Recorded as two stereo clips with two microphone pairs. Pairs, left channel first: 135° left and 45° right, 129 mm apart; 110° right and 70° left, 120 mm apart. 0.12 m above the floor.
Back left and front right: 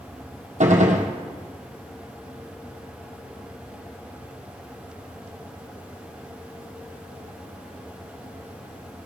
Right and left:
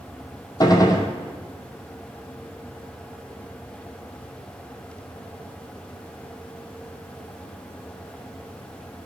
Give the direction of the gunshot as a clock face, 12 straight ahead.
2 o'clock.